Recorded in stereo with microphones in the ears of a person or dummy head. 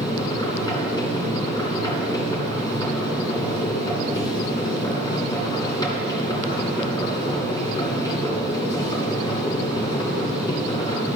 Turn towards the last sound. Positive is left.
turn(degrees=20)  # may be behind; listen again after turning